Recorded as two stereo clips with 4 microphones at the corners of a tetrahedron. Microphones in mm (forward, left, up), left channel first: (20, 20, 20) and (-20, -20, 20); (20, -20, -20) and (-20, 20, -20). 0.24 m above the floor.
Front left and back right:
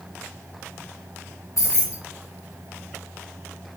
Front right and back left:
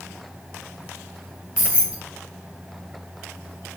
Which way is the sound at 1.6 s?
65° left.